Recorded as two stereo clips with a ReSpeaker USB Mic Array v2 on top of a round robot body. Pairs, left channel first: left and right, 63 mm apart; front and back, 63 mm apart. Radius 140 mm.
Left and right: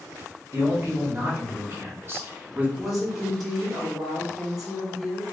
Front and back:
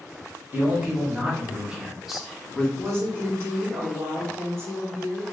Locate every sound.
0.5 s a man speaking: 125° right, 1.6 m; by 2.7 s 60° right, 1.0 m
2.8 s a woman speaking: straight behind, 1.6 m